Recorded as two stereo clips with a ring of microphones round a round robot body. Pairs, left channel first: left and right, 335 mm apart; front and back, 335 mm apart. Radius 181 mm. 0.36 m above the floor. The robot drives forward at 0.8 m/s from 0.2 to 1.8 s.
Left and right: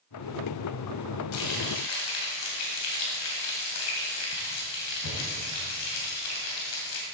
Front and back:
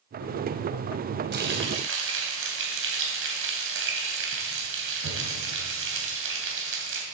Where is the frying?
125° left, 2.5 m; by 7.0 s 135° left, 2.5 m.